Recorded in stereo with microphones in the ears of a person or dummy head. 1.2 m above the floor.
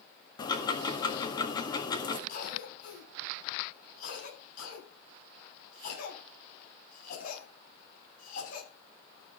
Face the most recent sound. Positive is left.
turn(degrees=55)  # may be behind; listen again after turning